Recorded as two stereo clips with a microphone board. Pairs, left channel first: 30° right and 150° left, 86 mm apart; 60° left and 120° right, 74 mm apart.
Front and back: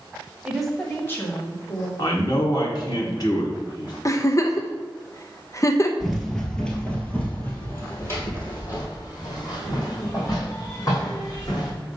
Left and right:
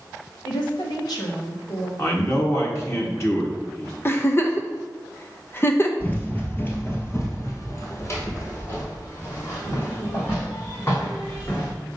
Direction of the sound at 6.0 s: 70° left.